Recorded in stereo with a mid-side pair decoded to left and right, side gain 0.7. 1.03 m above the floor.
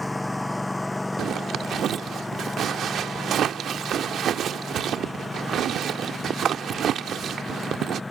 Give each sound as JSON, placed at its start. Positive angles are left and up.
{"t": 0.0, "sound": "a lawn mower", "azimuth_deg": 5}
{"t": 1.2, "sound": "a zipper", "azimuth_deg": -45}